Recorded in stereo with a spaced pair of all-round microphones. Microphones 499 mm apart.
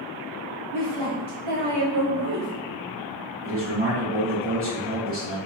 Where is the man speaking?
25° right (ahead or behind), 1.2 m.